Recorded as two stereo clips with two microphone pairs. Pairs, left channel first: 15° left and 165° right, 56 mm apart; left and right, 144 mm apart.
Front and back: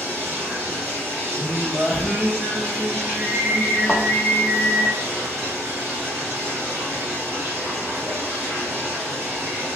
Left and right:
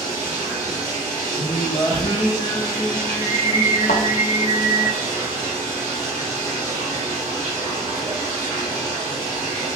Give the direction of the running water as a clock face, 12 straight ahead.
5 o'clock.